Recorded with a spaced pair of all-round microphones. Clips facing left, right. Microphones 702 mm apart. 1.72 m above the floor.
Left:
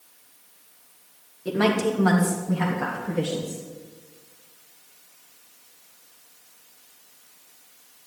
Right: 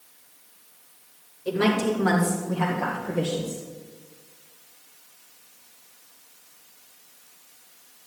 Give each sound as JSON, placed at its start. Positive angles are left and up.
{"t": 1.4, "sound": "a woman speaking", "side_deg": 70, "distance_m": 1.4}